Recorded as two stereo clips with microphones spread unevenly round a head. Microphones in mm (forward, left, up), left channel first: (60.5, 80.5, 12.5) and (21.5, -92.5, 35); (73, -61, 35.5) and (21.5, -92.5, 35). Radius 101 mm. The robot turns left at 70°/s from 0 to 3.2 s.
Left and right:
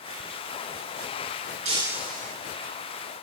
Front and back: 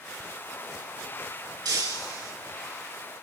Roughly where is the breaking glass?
Behind.